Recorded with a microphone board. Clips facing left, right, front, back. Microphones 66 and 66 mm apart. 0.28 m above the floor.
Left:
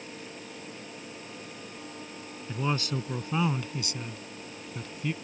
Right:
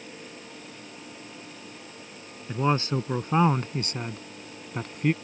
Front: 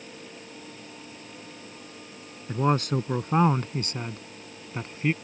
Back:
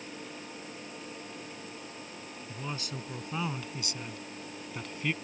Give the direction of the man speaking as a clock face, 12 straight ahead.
1 o'clock.